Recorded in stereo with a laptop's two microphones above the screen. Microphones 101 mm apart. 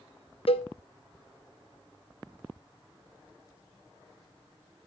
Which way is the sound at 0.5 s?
65° left (ahead or behind).